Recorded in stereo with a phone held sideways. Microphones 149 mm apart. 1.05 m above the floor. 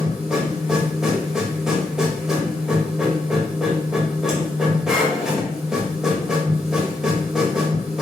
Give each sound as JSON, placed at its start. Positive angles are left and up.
{"t": 0.0, "sound": "a machine running", "side_deg": -5, "distance_m": 1.1}